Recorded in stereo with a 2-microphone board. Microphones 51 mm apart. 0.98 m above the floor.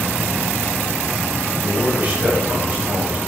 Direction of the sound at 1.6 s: 30° right (ahead or behind).